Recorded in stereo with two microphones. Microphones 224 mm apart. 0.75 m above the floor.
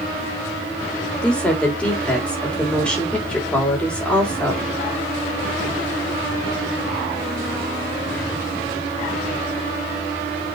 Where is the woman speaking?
5° left (ahead or behind), 3 m.